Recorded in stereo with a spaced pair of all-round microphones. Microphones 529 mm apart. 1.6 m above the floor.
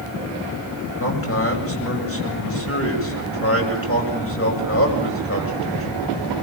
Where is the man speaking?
25° left (ahead or behind), 8 m.